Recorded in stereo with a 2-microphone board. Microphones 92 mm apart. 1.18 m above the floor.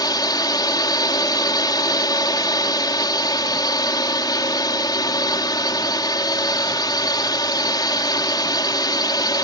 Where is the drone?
50° left (ahead or behind).